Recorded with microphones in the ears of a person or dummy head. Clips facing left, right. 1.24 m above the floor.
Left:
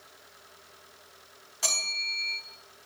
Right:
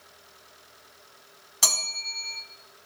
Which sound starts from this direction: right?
A bell, at 1.6 s.